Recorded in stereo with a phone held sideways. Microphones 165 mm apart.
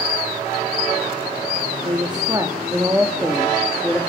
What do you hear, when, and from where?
1.9 s a woman speaking: 30° right (ahead or behind), 3 m; by 4.0 s 5° left (ahead or behind), 3 m